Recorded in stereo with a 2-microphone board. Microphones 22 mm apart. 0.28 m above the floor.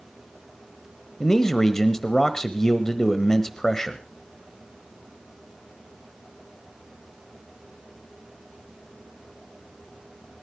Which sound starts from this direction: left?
A man speaking, at 1.2 s.